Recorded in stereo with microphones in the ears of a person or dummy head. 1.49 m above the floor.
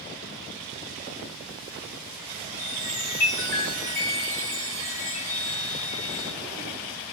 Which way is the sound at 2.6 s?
15° left (ahead or behind).